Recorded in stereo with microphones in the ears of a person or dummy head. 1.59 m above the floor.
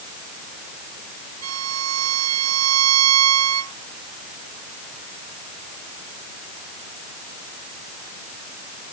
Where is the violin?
90° right.